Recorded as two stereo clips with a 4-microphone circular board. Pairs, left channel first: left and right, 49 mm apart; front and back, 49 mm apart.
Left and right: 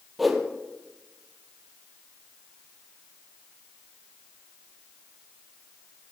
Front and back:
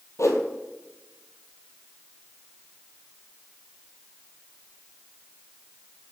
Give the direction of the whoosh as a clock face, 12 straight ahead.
12 o'clock.